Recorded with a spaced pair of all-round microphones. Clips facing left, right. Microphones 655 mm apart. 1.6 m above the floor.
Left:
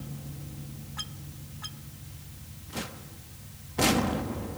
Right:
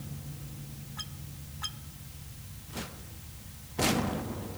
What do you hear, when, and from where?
Only background noise.